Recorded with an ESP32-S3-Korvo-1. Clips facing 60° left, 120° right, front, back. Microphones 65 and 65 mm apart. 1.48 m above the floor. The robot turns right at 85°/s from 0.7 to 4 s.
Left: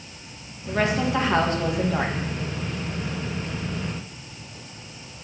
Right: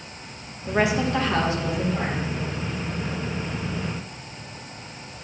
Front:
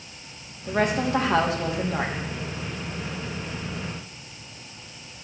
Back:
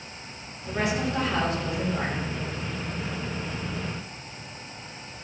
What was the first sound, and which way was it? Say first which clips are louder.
A woman speaking: right 1 dB, front 4 dB; 60° right.